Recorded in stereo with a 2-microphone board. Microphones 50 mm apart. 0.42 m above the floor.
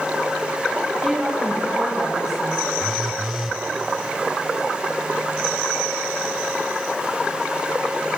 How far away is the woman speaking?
About 7.5 m.